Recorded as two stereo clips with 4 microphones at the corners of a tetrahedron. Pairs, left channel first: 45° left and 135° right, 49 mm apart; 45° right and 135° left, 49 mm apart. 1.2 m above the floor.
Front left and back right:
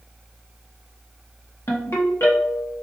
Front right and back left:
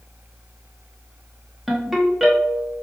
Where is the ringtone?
50° left, 1.0 m.